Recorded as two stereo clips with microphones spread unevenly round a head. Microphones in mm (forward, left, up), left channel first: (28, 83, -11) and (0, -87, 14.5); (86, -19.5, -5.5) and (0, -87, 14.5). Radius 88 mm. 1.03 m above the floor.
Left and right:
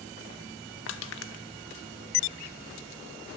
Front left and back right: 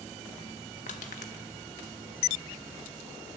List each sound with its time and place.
0.9 s crushing: 75° left, 1.1 m